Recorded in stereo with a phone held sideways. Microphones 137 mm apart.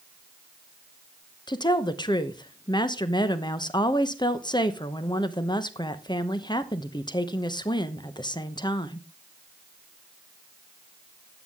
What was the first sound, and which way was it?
A woman speaking, 30° left (ahead or behind).